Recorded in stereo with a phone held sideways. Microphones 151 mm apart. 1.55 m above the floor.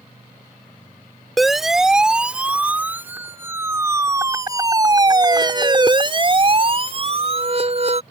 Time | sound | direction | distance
1.4 | a siren | centre (ahead or behind) | ?